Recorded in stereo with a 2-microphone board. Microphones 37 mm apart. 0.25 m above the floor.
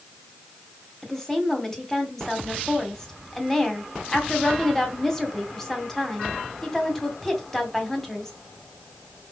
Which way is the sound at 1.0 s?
10° left (ahead or behind).